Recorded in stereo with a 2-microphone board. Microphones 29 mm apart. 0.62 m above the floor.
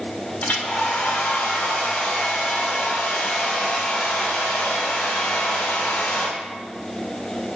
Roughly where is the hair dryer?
Left.